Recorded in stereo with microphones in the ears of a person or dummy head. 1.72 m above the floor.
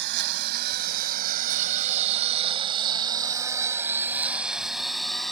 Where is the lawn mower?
65° right (ahead or behind); by 5.3 s 5° left (ahead or behind).